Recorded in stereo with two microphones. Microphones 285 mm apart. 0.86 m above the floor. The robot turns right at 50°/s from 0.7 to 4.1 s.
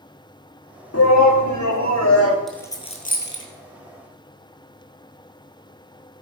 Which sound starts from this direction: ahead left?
A shout, at 0.9 s.